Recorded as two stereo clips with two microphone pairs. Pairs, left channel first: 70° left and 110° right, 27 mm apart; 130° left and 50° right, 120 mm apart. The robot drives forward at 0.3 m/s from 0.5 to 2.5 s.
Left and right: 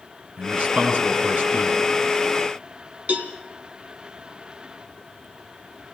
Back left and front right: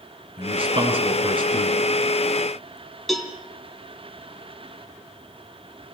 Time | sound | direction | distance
0.4 | a man speaking | 85° right | 5 m
3.1 | a cowbell | 140° right | 2.5 m